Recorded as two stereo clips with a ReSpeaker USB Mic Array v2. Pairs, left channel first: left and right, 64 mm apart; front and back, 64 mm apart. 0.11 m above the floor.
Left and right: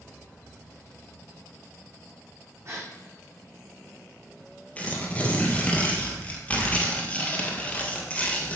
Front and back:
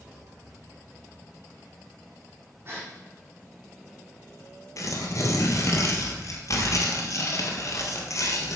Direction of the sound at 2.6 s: 130° right.